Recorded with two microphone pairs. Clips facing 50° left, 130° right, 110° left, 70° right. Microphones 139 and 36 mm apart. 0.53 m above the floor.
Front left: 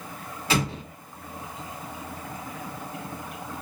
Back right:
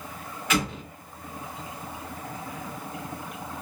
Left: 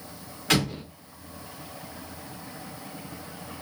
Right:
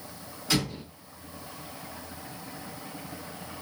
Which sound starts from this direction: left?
An explosion, at 0.5 s.